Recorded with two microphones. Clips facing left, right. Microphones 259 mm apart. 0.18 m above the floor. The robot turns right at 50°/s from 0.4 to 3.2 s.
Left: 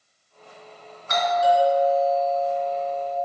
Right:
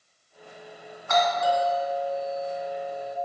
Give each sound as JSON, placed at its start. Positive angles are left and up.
{"t": 1.1, "sound": "a doorbell", "azimuth_deg": 85, "distance_m": 2.0}